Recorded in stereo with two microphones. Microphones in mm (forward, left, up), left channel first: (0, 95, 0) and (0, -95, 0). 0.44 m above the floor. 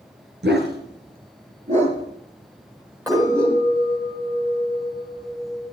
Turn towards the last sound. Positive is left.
turn(degrees=-15)  # may be behind; listen again after turning